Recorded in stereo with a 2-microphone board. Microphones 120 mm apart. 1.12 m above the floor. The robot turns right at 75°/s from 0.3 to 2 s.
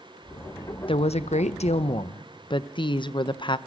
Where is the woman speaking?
50° left, 0.7 m; by 3.6 s 135° left, 0.7 m.